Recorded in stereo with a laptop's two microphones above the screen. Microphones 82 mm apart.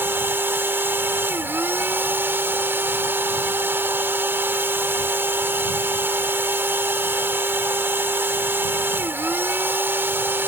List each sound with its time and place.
0.0 s a machine running: 25° right (ahead or behind)